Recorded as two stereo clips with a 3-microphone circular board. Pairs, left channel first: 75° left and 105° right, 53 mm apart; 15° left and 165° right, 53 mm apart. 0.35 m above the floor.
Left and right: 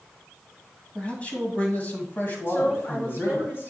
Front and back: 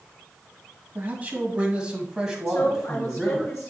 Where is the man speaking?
140° left, 2.5 m; by 3.5 s 100° left, 2.5 m.